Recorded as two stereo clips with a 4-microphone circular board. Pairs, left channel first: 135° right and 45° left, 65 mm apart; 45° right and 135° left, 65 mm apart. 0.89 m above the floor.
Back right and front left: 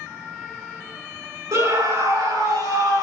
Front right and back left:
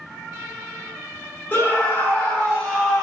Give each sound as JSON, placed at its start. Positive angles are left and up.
{"t": 1.5, "sound": "a scream", "azimuth_deg": 15, "distance_m": 2.5}